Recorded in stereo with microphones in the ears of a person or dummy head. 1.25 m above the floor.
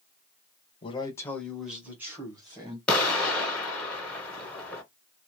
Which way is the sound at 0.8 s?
25° left (ahead or behind).